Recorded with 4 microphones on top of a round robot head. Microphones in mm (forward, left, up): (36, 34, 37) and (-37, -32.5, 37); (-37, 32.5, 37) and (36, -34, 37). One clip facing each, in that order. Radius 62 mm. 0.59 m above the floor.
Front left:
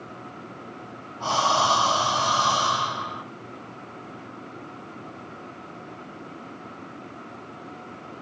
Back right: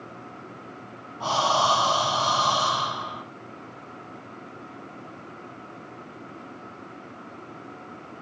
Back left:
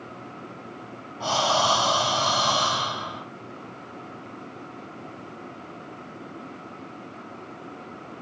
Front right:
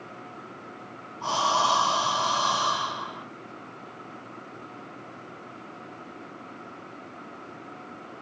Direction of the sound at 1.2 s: 150° left.